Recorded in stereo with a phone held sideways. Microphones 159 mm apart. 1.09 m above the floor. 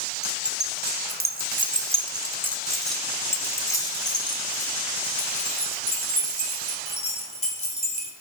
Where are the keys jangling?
85° right, 1.1 m; by 8.1 s 40° left (ahead or behind), 3.5 m.